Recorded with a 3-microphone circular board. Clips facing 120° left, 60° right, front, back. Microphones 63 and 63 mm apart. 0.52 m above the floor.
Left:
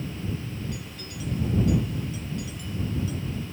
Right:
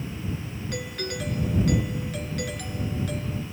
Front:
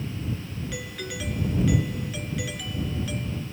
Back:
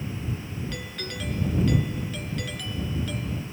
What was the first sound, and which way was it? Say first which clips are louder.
A doorbell: right 7 dB, front 1 dB; 85° right.